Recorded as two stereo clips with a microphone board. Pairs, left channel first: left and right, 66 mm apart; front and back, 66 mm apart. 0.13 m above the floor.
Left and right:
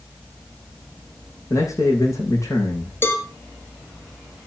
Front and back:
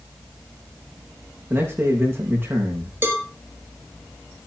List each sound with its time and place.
1.5 s a man speaking: 125° left, 6 m
3.0 s a cowbell: 135° left, 2 m